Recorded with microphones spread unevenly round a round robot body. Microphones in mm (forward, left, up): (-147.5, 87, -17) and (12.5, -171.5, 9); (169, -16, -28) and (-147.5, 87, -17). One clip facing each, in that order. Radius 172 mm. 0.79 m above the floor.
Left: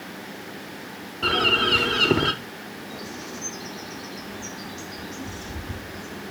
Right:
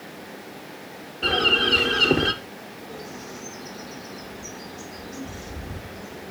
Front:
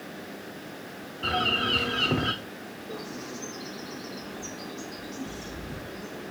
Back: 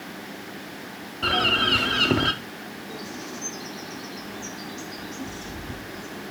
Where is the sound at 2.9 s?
95° left, 1.5 m.